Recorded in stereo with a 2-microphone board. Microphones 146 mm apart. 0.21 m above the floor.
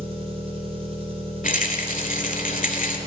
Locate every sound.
0.0 s an engine running: 40° right (ahead or behind), 2.5 m
1.4 s a rattle: 70° left (ahead or behind), 1.1 m